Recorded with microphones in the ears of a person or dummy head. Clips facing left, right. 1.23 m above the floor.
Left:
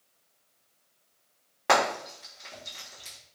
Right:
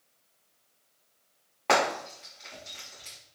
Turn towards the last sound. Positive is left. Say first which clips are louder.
# left 1 dB
turn(degrees=10)  # may be behind; listen again after turning